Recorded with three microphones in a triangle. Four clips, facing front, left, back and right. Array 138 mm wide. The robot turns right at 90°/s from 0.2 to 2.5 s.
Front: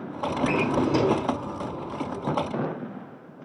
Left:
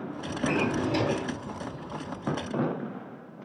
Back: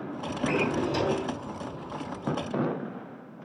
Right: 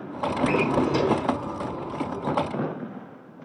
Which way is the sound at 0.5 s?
75° right.